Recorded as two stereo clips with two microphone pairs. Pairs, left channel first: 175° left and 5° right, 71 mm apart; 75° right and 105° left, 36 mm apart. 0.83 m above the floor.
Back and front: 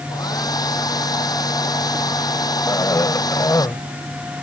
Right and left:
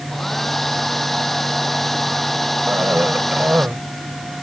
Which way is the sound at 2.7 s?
130° left.